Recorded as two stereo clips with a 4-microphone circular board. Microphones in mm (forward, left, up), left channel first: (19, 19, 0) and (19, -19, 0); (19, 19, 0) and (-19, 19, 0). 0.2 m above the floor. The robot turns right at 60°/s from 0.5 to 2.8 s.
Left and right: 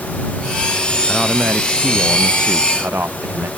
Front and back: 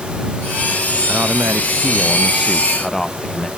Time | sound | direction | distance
1.1 | a man speaking | straight behind | ?